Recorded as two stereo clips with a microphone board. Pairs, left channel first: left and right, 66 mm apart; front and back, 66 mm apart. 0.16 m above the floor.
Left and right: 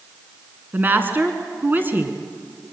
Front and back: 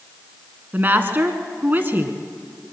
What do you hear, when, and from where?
0.7 s a woman speaking: 135° right, 1.7 m